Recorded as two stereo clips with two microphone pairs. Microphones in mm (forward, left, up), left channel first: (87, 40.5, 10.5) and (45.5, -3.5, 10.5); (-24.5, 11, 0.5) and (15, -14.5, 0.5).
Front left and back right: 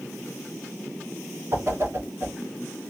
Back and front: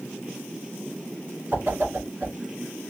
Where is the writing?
No writing in this recording.